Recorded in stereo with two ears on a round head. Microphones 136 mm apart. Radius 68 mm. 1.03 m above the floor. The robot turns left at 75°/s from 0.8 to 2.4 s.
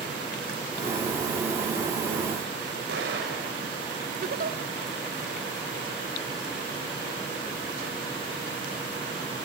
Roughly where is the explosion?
Right.